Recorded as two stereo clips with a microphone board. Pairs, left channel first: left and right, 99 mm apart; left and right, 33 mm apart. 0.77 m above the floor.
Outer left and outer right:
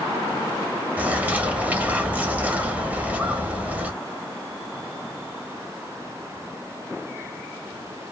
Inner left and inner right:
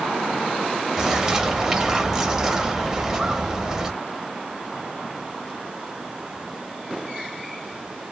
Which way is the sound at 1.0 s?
15° right (ahead or behind).